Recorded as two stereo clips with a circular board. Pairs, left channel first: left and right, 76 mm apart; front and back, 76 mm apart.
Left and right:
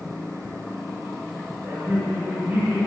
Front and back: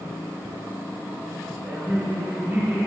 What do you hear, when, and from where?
1.6 s laughter: 130° right, 2 m